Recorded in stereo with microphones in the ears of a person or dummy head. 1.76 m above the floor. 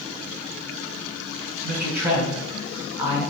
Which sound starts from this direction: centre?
A man speaking, at 1.6 s.